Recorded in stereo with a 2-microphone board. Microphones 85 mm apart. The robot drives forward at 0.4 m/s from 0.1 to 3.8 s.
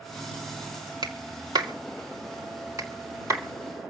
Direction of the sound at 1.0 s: 55° right (ahead or behind).